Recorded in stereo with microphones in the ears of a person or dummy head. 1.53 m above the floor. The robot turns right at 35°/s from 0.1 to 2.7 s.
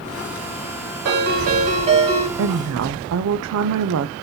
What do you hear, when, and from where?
1.1 s a ringtone: 65° right, 4.5 m; by 2.3 s 20° right, 4.5 m
2.4 s a woman speaking: 65° right (ahead or behind), 0.7 m; by 4.1 s 75° right (ahead or behind), 0.7 m